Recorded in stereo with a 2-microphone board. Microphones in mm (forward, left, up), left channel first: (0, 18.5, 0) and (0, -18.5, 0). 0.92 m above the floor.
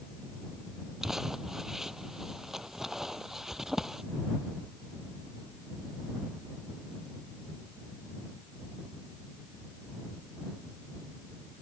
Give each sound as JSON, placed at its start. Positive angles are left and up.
{"t": 1.0, "sound": "crumpling", "side_deg": -10}